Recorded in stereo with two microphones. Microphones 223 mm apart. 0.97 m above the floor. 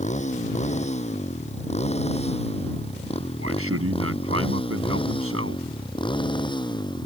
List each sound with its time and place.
0.0 s a motorcycle: 30° left (ahead or behind); by 7.1 s 20° left (ahead or behind)
3.4 s a man speaking: 85° right